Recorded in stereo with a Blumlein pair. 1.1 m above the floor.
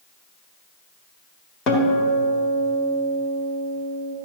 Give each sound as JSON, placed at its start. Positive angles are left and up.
{"t": 1.7, "sound": "a guitar", "azimuth_deg": 30, "distance_m": 1.7}